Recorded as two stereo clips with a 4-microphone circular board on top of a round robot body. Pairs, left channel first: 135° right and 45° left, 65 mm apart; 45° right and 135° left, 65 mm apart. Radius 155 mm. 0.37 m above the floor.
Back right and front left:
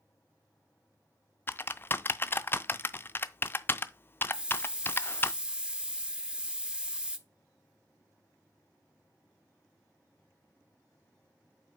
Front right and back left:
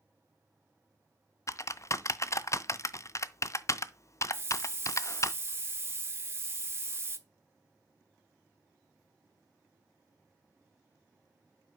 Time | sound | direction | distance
1.5 | typing on a keyboard | 80° right | 0.5 m
4.3 | a hiss | 115° left | 1.0 m